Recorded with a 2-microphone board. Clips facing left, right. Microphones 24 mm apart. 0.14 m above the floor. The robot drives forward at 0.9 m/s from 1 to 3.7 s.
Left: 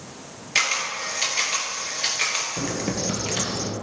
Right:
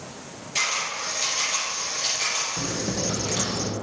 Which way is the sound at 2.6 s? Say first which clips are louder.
Left 1 dB; 70° left (ahead or behind).